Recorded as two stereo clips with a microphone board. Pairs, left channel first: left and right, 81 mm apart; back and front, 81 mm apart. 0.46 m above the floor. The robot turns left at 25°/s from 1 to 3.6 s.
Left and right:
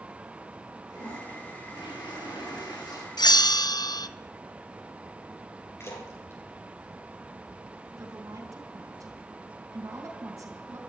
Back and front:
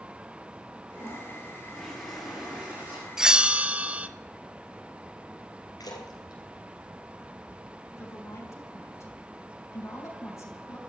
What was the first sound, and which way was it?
A toilet flushing, 115° left.